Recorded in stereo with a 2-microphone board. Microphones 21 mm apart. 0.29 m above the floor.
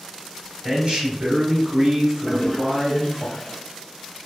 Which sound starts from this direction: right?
A man speaking, at 0.6 s.